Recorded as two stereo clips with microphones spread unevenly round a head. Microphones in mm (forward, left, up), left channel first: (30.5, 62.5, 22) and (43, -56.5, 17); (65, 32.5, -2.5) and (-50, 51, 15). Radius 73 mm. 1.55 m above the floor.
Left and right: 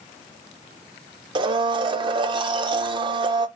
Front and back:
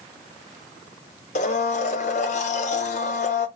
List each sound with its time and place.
1.4 s a blender: 40° right, 0.6 m